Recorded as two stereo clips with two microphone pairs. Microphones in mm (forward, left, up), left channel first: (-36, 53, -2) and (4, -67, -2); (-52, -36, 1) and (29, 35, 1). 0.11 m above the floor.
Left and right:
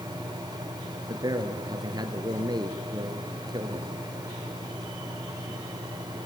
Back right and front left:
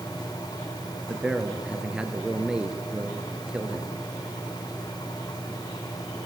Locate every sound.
1.1 s a man speaking: 35° right, 1.8 m